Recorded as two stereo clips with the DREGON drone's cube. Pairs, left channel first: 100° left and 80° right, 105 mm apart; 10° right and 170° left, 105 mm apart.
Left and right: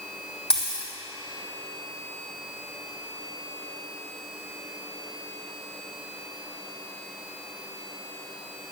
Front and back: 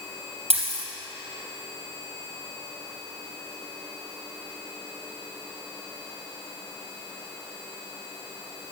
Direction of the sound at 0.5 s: 175° right.